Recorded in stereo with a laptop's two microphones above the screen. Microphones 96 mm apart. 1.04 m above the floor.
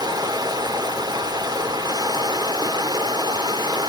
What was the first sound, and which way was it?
Running water, 45° right (ahead or behind).